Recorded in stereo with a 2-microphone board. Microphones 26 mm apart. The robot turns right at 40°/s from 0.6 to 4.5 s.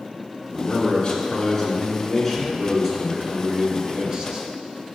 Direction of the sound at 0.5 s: 115° left.